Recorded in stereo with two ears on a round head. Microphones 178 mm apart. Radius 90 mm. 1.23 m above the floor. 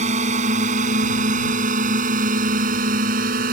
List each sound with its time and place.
0.0 s a drone: 35° right (ahead or behind); by 3.5 s 45° right (ahead or behind)